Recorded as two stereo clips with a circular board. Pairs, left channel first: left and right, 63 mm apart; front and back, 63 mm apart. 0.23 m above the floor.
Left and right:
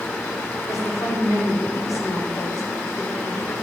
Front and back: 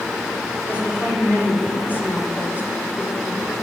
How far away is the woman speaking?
About 8 m.